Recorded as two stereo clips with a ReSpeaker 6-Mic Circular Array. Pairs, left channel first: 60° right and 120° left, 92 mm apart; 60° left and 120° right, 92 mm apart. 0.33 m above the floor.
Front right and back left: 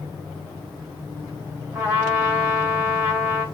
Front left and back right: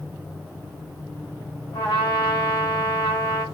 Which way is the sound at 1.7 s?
55° left.